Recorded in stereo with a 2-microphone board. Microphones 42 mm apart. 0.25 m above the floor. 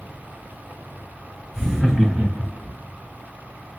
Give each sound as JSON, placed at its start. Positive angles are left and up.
{"t": 1.5, "sound": "laughter", "side_deg": 0, "distance_m": 1.2}